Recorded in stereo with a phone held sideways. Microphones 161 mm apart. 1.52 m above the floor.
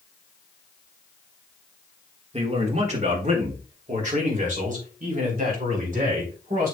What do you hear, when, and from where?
2.3 s a man speaking: 40° right (ahead or behind), 2.0 m; by 6.7 s 60° right (ahead or behind), 4.5 m